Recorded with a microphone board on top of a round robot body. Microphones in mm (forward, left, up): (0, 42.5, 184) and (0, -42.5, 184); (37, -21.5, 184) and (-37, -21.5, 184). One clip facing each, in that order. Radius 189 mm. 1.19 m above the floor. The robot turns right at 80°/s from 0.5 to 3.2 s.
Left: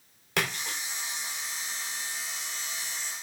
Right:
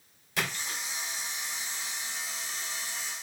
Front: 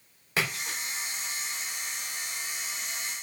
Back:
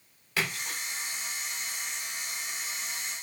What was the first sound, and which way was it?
A splash, 60° left.